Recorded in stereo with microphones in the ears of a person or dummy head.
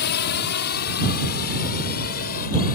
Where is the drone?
60° left (ahead or behind); by 2.8 s 50° left (ahead or behind).